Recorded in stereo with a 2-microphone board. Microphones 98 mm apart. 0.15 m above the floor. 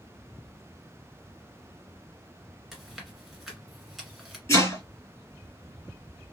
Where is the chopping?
30° left (ahead or behind), 2.5 m.